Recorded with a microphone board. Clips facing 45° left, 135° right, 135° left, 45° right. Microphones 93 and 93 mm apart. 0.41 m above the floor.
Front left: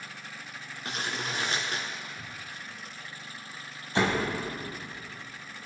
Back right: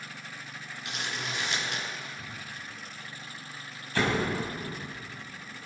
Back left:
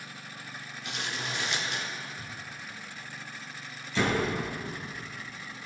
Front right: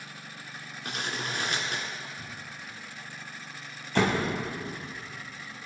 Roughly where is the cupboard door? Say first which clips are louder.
Back right 1 dB, even; ahead left.